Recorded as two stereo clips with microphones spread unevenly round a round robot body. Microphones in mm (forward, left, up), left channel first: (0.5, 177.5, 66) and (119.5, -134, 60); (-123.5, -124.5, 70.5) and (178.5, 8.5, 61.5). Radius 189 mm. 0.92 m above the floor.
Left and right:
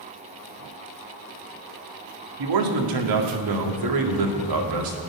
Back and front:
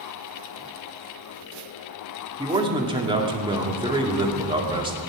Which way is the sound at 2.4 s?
50° right.